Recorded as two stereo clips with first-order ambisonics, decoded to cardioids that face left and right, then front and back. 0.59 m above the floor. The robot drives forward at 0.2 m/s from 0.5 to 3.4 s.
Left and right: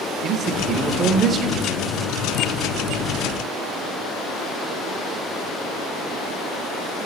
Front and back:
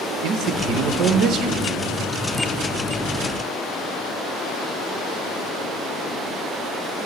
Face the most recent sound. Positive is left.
turn(degrees=-155)